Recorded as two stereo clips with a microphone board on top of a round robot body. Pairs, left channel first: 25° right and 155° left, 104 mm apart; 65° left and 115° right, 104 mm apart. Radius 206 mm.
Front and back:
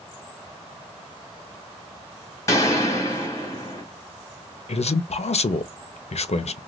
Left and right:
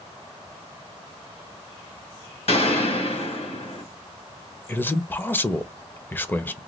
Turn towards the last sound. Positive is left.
turn(degrees=-5)